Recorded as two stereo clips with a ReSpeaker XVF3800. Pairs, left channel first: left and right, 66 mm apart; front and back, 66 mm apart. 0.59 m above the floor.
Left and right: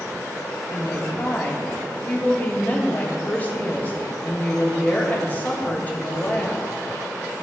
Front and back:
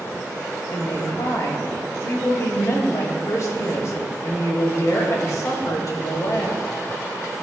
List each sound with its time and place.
0.7 s a woman speaking: 30° left, 2.5 m